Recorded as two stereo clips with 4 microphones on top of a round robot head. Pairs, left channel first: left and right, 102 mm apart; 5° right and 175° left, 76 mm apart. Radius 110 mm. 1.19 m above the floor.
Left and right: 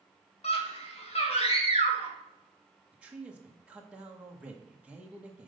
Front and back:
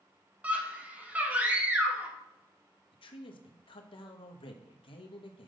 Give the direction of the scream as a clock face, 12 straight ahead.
9 o'clock.